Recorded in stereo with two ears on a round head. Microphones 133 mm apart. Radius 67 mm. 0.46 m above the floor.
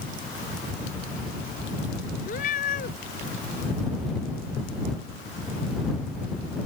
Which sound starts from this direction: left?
A cat meowing, at 2.2 s.